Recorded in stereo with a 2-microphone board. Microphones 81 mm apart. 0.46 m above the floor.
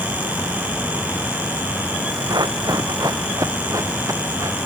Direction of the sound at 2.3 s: 60° right (ahead or behind).